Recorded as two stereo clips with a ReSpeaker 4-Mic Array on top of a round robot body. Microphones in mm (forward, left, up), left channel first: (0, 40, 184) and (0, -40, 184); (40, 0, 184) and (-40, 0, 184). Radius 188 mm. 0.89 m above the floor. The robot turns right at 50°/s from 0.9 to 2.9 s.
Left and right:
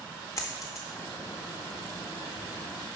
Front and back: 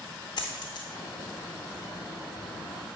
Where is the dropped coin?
35° left, 0.6 m.